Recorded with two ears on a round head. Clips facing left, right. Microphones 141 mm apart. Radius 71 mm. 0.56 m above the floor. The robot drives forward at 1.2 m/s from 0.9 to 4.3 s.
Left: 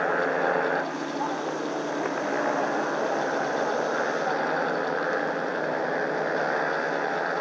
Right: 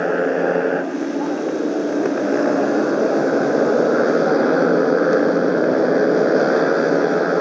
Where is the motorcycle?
45° right (ahead or behind); by 7.4 s 65° right (ahead or behind).